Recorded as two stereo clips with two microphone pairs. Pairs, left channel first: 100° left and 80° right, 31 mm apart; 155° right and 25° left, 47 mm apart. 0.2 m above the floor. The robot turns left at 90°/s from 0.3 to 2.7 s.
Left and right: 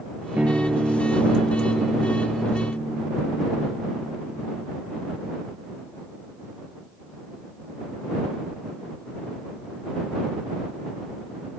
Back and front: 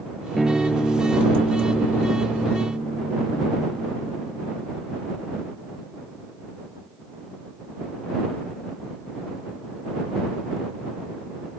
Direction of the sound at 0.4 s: 60° right.